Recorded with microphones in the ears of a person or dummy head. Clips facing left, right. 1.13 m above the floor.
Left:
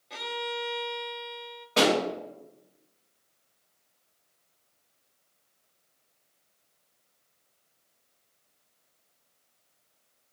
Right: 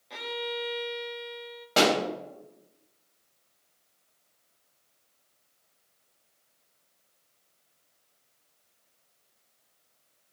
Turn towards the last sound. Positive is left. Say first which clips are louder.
# even
turn(degrees=-60)  # may be behind; listen again after turning